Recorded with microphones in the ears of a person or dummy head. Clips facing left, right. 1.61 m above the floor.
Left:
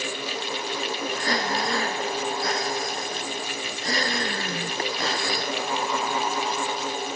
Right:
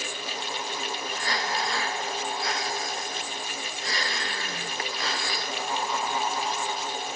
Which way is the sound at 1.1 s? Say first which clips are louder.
Left 3 dB; 35° left (ahead or behind).